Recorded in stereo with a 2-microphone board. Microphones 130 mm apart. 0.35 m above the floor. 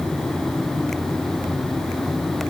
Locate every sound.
Only background noise.